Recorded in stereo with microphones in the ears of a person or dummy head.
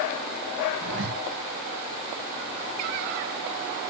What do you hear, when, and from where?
0.8 s a zipper: 70° right (ahead or behind), 7.5 m